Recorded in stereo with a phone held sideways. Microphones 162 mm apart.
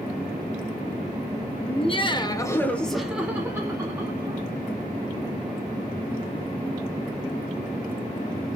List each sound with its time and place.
1.7 s laughter: 40° left (ahead or behind), 0.7 m; by 4.5 s 30° right (ahead or behind), 1.1 m